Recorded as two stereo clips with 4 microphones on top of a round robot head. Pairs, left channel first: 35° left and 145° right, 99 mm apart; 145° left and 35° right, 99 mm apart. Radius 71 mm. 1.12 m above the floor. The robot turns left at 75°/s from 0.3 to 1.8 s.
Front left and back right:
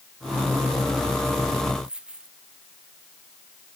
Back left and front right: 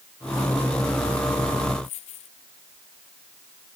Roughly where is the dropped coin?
Behind left.